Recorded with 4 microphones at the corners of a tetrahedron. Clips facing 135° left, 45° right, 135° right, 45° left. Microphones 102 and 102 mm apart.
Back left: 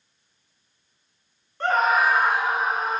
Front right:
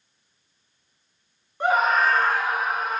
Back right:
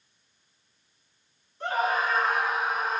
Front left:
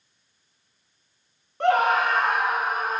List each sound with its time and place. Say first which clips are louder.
1.6 s a scream: even, front left 7 dB; 30° left, 1.5 m; by 3.0 s 80° left, 3 m